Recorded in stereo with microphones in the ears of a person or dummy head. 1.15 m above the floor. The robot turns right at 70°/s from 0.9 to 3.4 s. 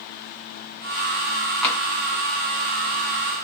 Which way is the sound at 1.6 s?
5° left (ahead or behind).